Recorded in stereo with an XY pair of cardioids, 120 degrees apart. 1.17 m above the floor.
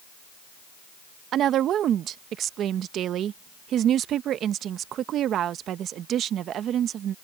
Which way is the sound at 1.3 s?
60° right.